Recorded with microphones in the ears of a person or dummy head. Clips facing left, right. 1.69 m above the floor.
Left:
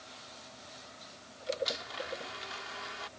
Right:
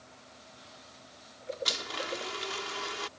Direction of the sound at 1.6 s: 70° right (ahead or behind).